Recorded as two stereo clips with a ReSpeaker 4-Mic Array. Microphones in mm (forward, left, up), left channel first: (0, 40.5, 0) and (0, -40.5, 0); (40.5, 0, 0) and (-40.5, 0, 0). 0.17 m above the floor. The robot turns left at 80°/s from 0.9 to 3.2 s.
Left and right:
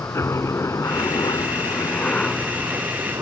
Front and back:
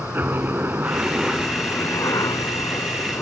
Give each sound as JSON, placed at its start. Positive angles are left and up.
{"t": 0.0, "sound": "a helicopter", "azimuth_deg": 125}